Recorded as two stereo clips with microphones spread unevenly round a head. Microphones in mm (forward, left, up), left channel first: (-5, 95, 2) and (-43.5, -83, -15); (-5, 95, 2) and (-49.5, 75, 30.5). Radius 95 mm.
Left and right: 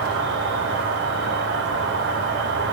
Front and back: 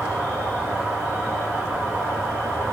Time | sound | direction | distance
0.0 | an insect | 95° right | 0.7 m